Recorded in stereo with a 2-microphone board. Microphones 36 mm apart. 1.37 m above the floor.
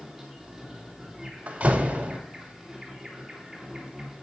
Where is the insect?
5° right (ahead or behind), 3.5 m.